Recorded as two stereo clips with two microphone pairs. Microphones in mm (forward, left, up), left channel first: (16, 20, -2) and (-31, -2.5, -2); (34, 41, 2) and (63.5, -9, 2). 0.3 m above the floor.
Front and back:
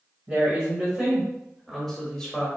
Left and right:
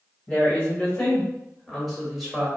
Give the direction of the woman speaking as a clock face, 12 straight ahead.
6 o'clock.